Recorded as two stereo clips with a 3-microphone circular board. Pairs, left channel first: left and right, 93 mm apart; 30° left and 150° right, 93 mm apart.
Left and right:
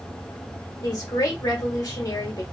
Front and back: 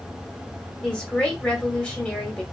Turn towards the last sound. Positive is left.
turn(degrees=105)